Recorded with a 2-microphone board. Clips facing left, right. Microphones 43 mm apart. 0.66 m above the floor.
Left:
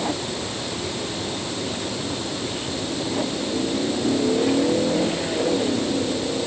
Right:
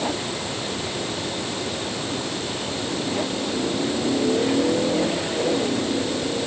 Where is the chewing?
No chewing in this recording.